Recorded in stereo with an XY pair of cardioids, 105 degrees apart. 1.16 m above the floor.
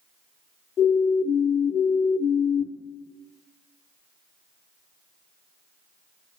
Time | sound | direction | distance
0.8 | a siren | 70° left | 4 m